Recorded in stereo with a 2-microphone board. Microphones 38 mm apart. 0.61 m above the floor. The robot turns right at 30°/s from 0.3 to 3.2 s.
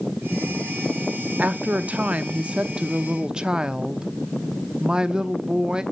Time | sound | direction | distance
1.4 | a woman speaking | 85° right | 0.7 m